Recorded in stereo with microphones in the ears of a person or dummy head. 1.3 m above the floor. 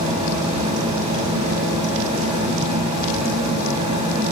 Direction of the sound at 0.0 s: 35° right (ahead or behind).